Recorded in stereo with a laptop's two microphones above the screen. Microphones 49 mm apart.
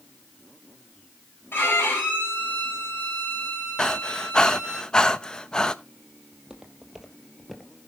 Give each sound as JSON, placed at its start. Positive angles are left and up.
{"t": 1.5, "sound": "a violin", "side_deg": 50, "distance_m": 5.5}
{"t": 3.8, "sound": "breathing", "side_deg": 15, "distance_m": 0.8}
{"t": 6.3, "sound": "footsteps", "side_deg": -15, "distance_m": 1.7}